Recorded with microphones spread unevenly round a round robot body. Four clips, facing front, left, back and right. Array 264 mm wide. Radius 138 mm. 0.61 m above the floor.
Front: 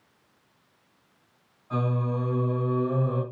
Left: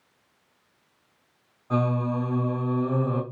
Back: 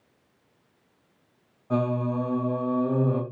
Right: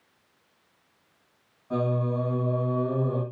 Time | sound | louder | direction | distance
1.7 | singing | left 1 dB, back 3 dB | 160° left | 2 m